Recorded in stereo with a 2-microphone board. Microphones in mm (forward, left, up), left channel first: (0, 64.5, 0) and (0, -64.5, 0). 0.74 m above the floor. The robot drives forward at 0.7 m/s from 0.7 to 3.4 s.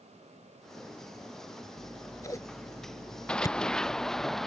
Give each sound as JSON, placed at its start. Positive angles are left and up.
{"t": 1.8, "sound": "scissors", "side_deg": 20}
{"t": 3.3, "sound": "running footsteps", "side_deg": 5}